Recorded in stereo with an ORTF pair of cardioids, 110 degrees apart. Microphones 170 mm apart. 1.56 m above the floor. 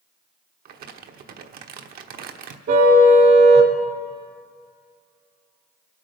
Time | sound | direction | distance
0.7 | crumpling | 60° right | 1.1 m
2.7 | a car horn | 70° right | 2.5 m